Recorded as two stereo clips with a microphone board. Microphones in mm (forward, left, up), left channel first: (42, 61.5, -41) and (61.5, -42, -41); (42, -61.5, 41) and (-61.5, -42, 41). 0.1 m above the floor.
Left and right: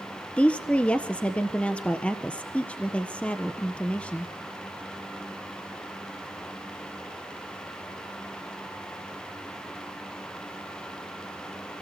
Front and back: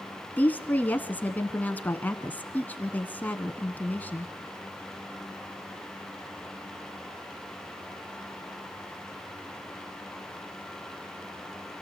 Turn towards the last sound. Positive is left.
turn(degrees=40)